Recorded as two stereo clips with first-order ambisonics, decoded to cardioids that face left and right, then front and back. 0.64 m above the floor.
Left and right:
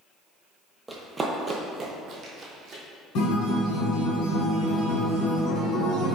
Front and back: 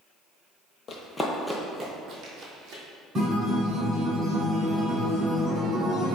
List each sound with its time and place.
0.9 s running footsteps: 15° right, 0.7 m; by 2.8 s 145° right, 1.2 m
3.1 s a guitar: 110° left, 1.5 m